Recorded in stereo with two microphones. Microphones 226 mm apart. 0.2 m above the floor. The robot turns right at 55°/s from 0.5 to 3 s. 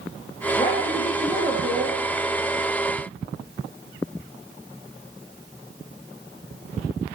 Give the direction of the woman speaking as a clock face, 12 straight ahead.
7 o'clock.